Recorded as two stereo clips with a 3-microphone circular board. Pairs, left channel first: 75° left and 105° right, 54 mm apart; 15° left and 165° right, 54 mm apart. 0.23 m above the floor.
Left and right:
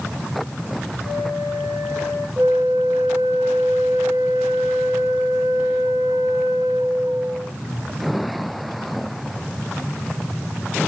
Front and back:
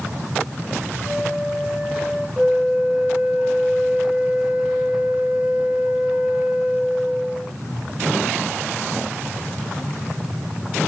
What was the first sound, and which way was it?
A flute, 100° right.